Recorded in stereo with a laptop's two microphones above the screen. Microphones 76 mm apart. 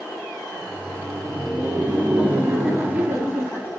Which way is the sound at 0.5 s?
25° right (ahead or behind).